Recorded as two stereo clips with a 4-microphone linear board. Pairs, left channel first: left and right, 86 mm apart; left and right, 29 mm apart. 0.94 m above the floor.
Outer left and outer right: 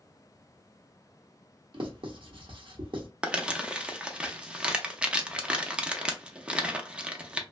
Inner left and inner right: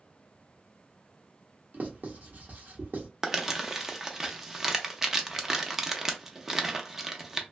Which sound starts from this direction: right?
Writing, at 1.7 s.